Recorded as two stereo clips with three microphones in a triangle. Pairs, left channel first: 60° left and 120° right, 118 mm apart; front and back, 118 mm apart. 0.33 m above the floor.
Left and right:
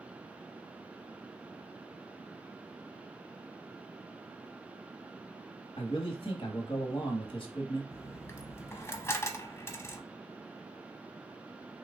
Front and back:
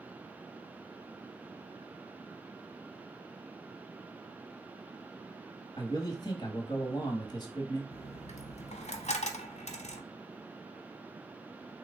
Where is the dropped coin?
10° right, 0.6 m.